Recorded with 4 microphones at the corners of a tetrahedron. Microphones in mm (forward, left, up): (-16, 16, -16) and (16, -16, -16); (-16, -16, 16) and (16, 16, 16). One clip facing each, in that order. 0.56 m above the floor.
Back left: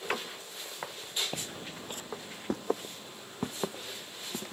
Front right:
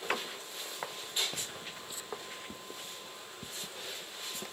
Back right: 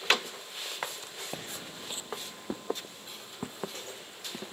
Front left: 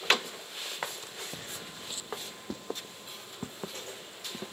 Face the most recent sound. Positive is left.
turn(degrees=150)